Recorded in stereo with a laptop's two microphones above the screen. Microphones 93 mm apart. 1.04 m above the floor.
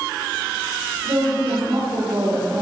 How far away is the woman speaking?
About 3.5 m.